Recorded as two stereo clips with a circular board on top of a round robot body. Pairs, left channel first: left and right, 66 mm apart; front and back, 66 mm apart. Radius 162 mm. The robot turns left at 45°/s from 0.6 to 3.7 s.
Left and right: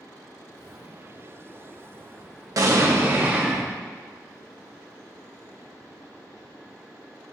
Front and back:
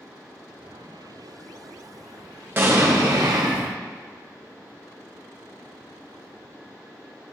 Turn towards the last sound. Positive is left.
turn(degrees=-175)